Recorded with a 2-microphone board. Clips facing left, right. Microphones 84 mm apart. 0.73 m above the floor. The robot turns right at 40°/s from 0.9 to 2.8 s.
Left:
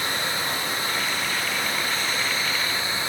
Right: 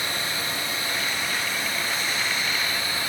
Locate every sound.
0.0 s running water: 75° left, 7.5 m; by 3.1 s 150° left, 7.5 m